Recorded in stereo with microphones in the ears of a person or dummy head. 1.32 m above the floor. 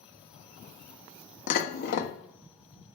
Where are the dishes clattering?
60° left (ahead or behind), 1.3 m.